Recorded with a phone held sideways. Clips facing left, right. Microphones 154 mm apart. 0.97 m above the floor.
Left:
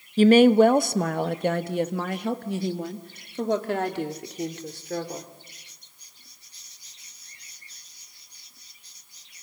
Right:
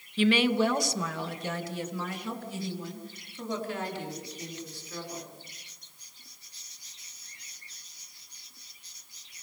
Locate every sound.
0.2 s a woman speaking: 45° left (ahead or behind), 0.8 m; by 5.3 s 80° left, 3.5 m